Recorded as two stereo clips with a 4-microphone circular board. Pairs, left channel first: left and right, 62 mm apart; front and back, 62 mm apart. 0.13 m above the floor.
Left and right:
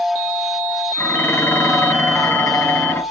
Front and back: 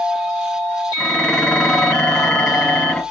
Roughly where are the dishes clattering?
Ahead left.